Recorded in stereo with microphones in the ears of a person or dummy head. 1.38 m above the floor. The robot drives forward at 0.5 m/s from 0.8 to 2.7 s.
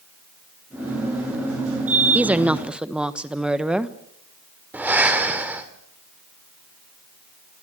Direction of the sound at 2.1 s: 10° right (ahead or behind).